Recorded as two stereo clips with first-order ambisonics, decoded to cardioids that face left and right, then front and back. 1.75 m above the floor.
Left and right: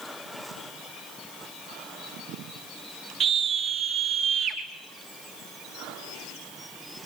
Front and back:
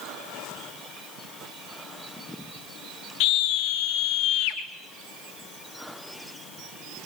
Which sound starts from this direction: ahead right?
A scream, at 3.2 s.